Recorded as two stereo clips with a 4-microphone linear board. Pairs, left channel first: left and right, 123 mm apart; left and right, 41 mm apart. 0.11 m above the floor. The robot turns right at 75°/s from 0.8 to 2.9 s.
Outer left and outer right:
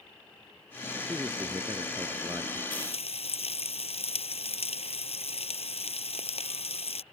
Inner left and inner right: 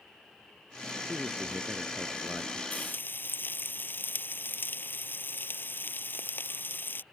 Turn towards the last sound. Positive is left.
turn(degrees=55)  # may be behind; listen again after turning